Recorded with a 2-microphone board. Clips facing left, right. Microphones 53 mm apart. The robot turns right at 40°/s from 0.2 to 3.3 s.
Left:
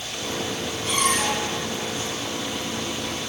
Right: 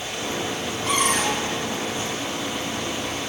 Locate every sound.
0.9 s a cupboard door: 80° right, 3 m; by 1.4 s 55° right (ahead or behind), 3 m